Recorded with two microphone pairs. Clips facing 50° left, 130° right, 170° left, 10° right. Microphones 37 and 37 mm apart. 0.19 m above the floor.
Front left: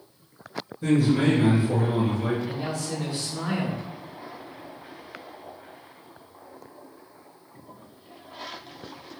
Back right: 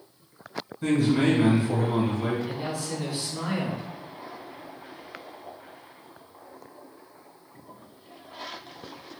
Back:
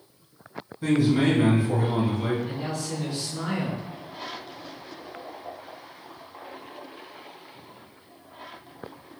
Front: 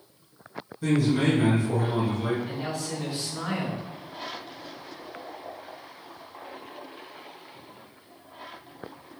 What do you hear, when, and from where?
0.8 s a man speaking: 125° right, 1.7 m
2.5 s a woman speaking: 85° right, 1.7 m